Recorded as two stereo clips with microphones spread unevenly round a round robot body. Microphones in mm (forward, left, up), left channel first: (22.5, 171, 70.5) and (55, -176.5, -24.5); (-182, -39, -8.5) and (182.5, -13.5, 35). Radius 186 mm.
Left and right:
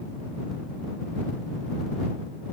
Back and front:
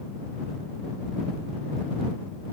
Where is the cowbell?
No cowbell in this recording.